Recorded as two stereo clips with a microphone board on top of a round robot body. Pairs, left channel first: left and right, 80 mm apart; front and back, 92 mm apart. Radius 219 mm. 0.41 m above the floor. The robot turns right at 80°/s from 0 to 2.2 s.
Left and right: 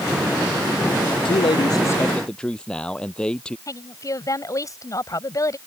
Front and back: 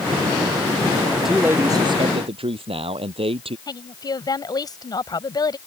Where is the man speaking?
85° left; by 3.6 s 170° left.